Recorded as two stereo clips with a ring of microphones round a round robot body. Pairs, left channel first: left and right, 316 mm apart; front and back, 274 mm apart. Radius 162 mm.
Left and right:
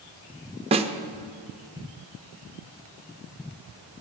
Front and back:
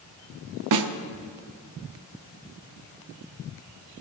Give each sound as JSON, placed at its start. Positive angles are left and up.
{"t": 0.7, "sound": "a snare drum", "azimuth_deg": -160, "distance_m": 0.7}